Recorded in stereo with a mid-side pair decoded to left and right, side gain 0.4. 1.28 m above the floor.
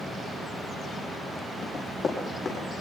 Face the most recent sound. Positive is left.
turn(degrees=50)